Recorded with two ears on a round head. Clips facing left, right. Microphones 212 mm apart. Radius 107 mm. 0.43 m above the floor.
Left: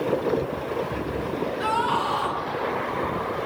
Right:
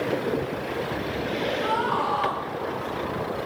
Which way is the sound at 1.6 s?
45° left (ahead or behind).